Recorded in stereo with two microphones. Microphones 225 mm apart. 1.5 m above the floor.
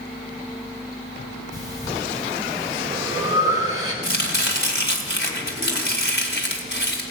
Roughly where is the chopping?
Left.